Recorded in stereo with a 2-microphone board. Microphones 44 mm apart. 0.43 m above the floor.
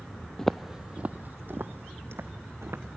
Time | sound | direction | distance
0.4 | footsteps | 10° left (ahead or behind) | 0.5 m